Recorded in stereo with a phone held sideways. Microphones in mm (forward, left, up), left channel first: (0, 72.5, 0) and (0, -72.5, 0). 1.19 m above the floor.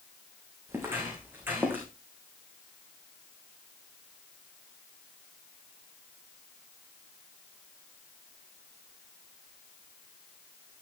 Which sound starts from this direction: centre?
Footsteps, at 0.7 s.